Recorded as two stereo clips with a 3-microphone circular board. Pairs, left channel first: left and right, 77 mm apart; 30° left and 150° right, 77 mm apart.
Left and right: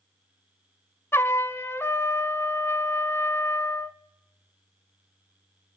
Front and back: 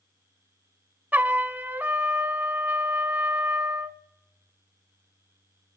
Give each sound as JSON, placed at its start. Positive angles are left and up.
{"t": 1.1, "sound": "a trumpet", "azimuth_deg": 145, "distance_m": 1.1}